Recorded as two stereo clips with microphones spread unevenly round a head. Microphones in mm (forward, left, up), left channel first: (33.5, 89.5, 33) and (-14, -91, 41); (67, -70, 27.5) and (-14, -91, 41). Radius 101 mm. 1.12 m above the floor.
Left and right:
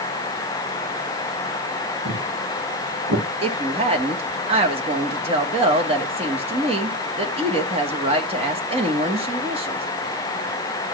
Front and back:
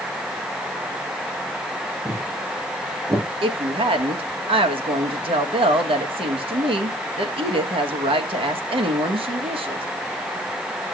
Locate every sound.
2.0 s footsteps: 110° right, 4.5 m
3.4 s a woman speaking: 165° right, 1.5 m